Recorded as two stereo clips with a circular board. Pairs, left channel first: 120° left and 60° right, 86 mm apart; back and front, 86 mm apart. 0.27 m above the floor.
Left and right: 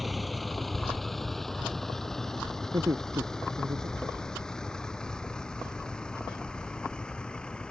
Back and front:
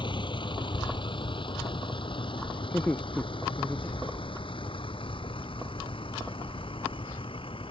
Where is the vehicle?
150° right; by 7.7 s 160° right.